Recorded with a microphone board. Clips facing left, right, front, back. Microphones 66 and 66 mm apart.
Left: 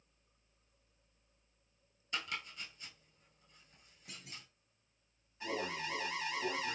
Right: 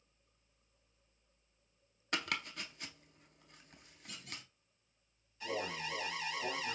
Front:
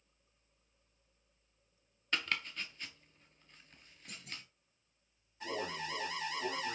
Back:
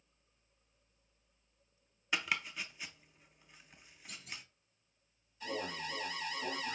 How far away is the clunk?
About 3.5 m.